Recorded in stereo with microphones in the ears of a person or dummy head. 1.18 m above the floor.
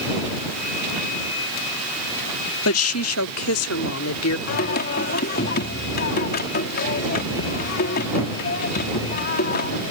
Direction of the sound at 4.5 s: 55° left (ahead or behind).